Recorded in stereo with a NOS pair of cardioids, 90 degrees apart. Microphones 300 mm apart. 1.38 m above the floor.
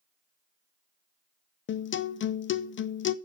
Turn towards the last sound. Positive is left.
turn(degrees=40)